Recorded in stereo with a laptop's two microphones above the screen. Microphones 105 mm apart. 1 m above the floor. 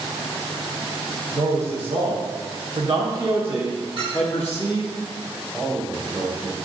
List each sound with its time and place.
1.3 s a man speaking: 65° right (ahead or behind), 1.6 m; by 5.0 s 45° left (ahead or behind), 0.8 m
4.0 s a clink: 55° right (ahead or behind), 2.5 m
5.5 s a man speaking: 10° right (ahead or behind), 2 m